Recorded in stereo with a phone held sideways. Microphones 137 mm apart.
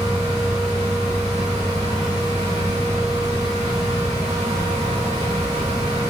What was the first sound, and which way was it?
A fan, 25° right (ahead or behind).